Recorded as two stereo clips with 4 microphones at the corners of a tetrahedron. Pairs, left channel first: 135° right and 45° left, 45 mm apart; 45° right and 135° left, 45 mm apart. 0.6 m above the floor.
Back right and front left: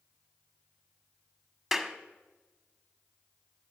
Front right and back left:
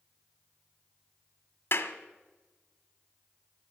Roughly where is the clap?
Ahead right.